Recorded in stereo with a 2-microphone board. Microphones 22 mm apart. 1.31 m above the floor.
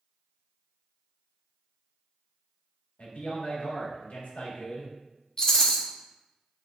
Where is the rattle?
20° left (ahead or behind), 0.8 m.